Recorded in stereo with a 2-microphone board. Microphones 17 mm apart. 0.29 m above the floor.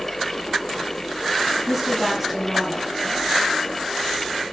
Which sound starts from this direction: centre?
A woman speaking, at 1.7 s.